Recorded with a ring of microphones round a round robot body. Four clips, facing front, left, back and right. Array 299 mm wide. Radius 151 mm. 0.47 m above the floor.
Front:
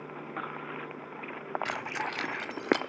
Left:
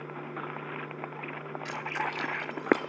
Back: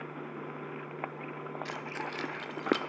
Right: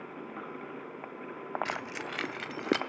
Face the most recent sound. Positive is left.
turn(degrees=-80)